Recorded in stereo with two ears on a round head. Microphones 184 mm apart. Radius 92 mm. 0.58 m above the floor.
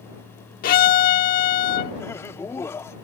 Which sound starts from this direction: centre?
Laughter, at 2.0 s.